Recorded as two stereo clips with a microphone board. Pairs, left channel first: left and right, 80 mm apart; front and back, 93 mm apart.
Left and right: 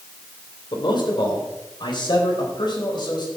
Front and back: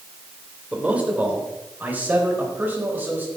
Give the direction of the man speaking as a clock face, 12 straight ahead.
8 o'clock.